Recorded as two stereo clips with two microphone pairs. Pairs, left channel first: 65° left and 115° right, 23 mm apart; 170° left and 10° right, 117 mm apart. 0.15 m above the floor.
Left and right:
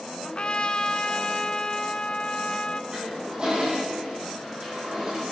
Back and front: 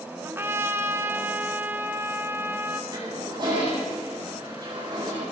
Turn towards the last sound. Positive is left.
turn(degrees=-55)